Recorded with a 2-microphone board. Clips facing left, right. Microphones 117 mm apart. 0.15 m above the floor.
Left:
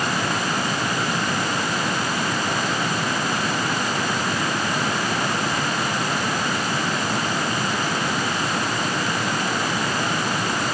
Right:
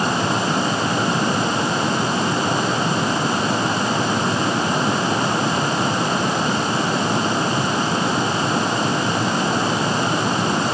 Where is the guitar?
No guitar in this recording.